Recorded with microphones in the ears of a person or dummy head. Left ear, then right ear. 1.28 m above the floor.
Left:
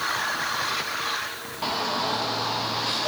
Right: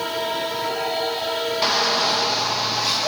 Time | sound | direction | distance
1.6 | a shout | 60° right (ahead or behind) | 1.8 m